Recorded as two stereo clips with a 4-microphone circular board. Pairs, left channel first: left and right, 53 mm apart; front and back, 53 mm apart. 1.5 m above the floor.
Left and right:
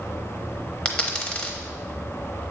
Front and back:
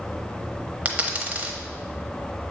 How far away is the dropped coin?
About 0.8 m.